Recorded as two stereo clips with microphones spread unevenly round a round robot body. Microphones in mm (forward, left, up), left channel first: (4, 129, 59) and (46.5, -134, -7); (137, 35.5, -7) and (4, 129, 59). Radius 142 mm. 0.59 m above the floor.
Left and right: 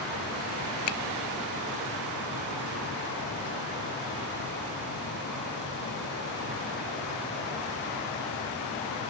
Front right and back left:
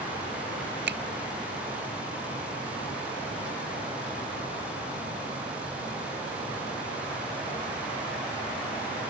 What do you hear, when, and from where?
0.9 s a finger snap: 120° left